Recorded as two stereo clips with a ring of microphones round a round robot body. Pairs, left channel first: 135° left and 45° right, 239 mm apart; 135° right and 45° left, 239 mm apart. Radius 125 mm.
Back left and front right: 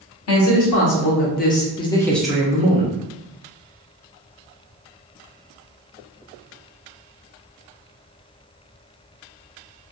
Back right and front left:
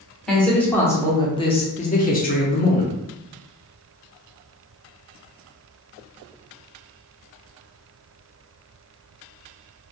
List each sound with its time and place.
0.3 s a man speaking: 140° left, 1.3 m; by 2.9 s 100° right, 1.0 m